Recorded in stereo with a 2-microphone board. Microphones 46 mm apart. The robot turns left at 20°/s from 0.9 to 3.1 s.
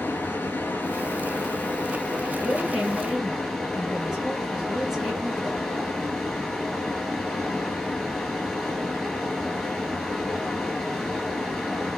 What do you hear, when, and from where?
0.0 s running water: 55° left, 0.9 m; by 12.0 s 10° left, 0.9 m
2.4 s a woman speaking: 20° right (ahead or behind), 1.6 m; by 5.7 s 10° right (ahead or behind), 1.6 m